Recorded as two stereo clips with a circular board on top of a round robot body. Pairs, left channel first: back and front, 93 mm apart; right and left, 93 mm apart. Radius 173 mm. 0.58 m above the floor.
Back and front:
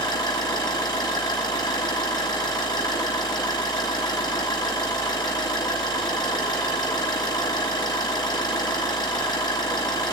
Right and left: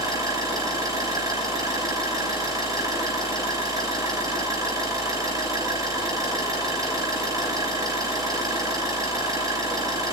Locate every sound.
0.0 s an engine running: 140° left, 8.5 m